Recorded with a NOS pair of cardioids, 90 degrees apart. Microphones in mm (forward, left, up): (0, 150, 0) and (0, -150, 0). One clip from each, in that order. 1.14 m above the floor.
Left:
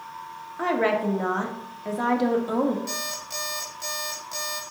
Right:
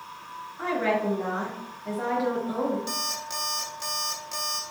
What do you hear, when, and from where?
0.6 s a woman speaking: 55° left, 1.9 m
2.9 s an alarm clock: 15° right, 2 m